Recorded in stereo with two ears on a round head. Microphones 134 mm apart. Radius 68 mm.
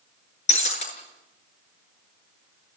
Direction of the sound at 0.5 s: 45° left (ahead or behind).